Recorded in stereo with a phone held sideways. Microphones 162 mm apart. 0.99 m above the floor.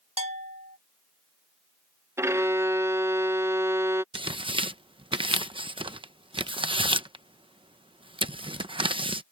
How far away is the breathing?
I don't hear breathing.